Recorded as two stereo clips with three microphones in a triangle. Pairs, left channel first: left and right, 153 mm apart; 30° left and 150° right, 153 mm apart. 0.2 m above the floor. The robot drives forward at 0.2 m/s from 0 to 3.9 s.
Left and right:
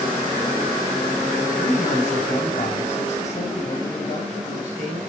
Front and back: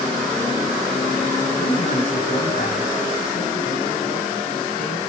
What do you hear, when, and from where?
1.6 s a man speaking: 55° left, 5 m; by 5.0 s 60° left, 5 m